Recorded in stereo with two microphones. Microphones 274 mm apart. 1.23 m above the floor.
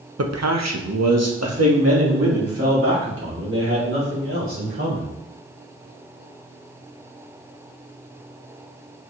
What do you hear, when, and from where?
0.2 s a man speaking: 70° right (ahead or behind), 0.8 m; by 5.1 s 55° right (ahead or behind), 4.5 m